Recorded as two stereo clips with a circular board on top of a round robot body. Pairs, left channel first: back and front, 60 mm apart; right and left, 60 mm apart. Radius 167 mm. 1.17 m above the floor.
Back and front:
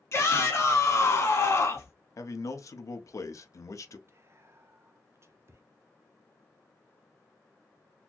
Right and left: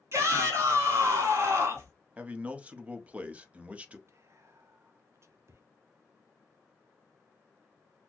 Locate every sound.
0.1 s a shout: 135° left, 2.0 m
2.2 s a man speaking: 160° left, 0.8 m
4.1 s whispering: 45° left, 0.5 m